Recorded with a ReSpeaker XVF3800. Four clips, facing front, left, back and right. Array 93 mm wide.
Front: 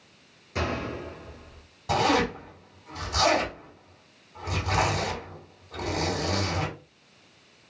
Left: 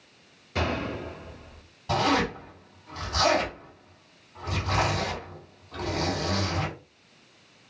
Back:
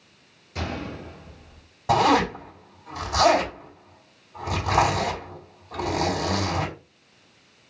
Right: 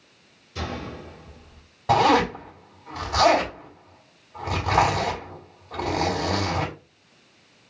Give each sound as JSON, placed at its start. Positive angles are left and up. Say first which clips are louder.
{"t": 0.6, "sound": "a gunshot", "louder": "left 4 dB, front 2 dB", "azimuth_deg": 65, "distance_m": 1.9}
{"t": 1.9, "sound": "a zipper", "louder": "right 6 dB, back 4 dB", "azimuth_deg": -120, "distance_m": 3.5}